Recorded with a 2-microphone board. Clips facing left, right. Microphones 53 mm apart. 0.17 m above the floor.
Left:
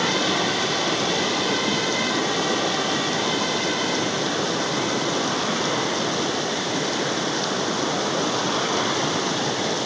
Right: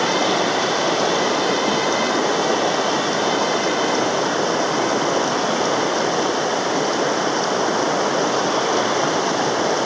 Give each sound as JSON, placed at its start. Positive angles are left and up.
{"t": 0.0, "sound": "running water", "side_deg": -45}